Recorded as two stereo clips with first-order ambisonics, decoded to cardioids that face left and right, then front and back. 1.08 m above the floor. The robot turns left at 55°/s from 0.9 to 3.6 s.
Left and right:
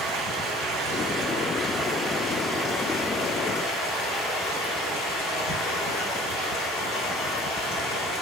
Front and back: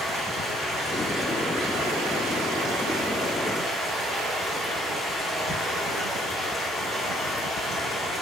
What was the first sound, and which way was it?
Running water, 105° right.